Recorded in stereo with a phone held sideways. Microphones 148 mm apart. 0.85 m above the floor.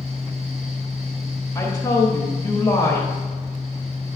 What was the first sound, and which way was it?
A fan, 45° right (ahead or behind).